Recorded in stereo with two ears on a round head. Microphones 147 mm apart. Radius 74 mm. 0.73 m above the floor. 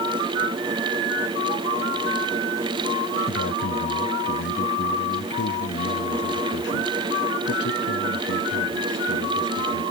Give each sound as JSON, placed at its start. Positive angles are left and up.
{"t": 3.3, "sound": "a man speaking", "side_deg": 80}